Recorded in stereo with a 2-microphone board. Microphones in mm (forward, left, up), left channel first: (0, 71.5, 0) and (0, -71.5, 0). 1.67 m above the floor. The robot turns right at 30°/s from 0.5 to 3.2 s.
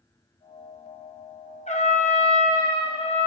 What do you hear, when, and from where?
1.7 s a trumpet: 80° left, 1.2 m; by 3.3 s 125° left, 1.2 m